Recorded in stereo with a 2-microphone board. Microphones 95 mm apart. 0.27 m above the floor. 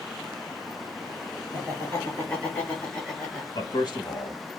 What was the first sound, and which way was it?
Laughter, 20° left (ahead or behind).